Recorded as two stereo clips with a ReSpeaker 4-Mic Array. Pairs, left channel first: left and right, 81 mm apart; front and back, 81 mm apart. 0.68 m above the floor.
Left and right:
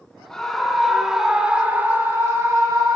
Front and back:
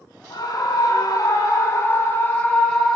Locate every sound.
0.3 s a scream: 10° left, 2 m; by 3.0 s 80° right, 1.7 m